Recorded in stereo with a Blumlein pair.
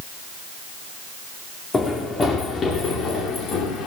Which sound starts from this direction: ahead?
Running footsteps, at 1.7 s.